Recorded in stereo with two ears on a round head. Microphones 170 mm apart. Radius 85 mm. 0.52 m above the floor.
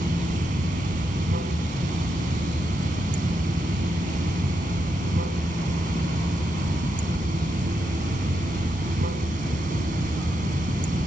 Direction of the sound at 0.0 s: 50° right (ahead or behind).